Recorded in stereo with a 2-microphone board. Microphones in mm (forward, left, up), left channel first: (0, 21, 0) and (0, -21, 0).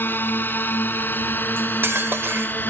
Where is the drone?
60° left (ahead or behind); by 2.7 s 55° left (ahead or behind).